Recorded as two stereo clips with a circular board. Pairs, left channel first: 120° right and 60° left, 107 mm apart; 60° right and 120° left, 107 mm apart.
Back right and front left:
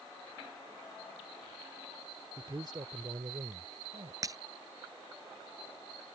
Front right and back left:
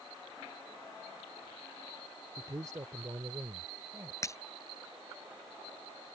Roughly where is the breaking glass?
Ahead.